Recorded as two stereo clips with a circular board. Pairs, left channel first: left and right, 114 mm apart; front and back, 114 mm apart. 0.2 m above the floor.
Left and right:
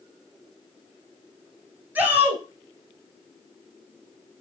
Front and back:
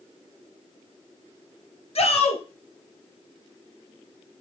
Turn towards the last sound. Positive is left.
turn(degrees=-15)